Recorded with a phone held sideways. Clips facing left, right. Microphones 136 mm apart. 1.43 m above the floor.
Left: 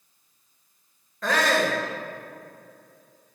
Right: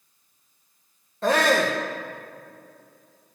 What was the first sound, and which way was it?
A shout, 30° right (ahead or behind).